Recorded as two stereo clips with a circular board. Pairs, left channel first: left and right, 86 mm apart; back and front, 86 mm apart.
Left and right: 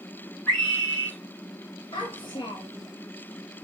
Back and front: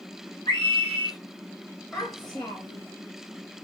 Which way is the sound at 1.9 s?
110° left.